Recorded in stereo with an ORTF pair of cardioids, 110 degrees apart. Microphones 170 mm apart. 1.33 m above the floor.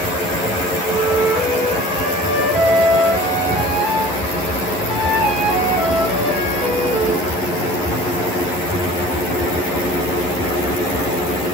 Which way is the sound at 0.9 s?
50° right.